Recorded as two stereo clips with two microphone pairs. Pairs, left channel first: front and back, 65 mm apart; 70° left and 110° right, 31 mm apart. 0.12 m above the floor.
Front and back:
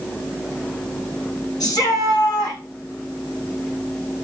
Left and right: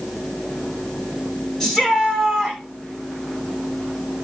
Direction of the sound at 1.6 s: 10° right.